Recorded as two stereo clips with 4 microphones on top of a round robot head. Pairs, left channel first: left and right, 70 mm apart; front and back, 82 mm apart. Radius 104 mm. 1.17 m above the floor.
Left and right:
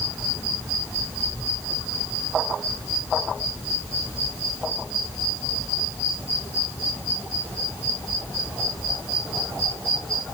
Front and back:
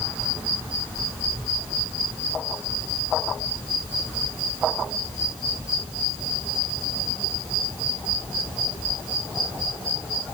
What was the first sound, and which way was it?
Only background noise.